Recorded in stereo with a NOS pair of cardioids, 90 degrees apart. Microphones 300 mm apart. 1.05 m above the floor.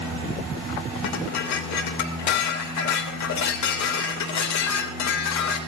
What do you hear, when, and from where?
1.0 s dishes clattering: 70° left, 3 m